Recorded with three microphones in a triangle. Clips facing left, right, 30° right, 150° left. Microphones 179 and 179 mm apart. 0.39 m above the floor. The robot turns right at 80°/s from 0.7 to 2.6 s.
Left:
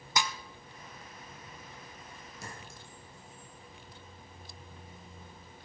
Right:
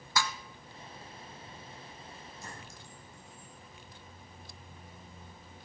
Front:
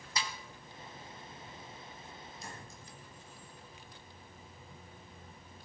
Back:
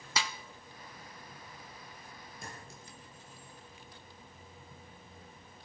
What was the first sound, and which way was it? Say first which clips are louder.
A snare drum: even, back 3 dB; 160° left.